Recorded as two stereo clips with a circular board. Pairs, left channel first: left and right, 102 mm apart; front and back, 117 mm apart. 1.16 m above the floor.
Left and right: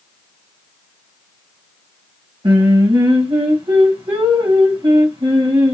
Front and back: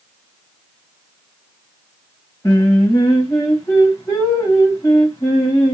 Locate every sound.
2.4 s singing: 60° right, 1.3 m